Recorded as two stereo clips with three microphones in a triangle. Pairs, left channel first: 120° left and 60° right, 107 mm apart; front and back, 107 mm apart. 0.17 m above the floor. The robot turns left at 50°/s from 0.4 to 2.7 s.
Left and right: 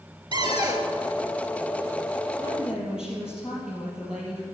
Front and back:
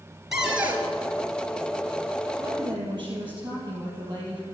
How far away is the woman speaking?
About 4 m.